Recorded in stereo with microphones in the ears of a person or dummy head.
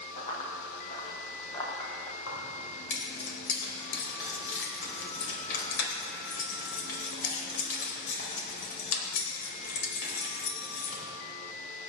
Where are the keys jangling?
75° left (ahead or behind), 4 m.